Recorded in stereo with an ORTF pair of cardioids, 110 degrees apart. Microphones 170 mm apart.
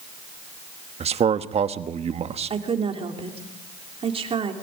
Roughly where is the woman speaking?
Ahead right.